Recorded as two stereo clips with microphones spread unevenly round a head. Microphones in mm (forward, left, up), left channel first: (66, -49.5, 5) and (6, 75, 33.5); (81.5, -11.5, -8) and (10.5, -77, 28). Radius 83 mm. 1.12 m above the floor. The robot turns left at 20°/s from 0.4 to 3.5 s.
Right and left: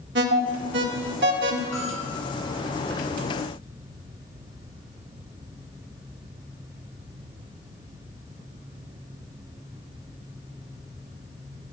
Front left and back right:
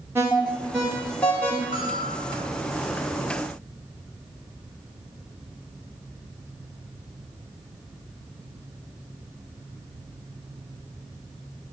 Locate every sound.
0.1 s an alarm: 145° left, 1.0 m; by 1.6 s 120° left, 1.0 m
1.7 s a bell: 130° right, 4.5 m; by 2.1 s 135° right, 4.5 m